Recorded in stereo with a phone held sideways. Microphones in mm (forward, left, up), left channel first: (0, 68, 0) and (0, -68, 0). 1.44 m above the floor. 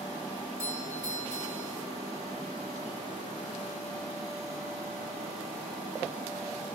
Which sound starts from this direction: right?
A doorbell, at 0.6 s.